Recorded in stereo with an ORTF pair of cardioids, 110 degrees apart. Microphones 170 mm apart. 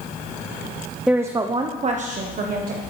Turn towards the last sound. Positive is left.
turn(degrees=-60)